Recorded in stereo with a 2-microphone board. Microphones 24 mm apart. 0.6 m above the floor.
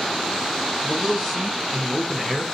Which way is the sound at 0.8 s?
5° left (ahead or behind).